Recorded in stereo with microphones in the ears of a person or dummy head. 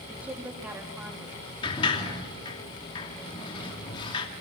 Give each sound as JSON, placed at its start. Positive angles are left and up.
{"t": 0.1, "sound": "a woman speaking", "side_deg": -15, "distance_m": 3.0}
{"t": 1.6, "sound": "a sliding door", "side_deg": 30, "distance_m": 2.5}